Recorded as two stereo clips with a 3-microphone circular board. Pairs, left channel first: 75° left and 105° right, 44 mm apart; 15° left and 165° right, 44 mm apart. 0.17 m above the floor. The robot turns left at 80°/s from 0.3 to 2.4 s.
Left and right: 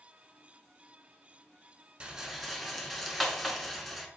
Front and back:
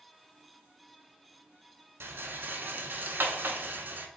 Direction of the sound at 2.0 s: 165° right.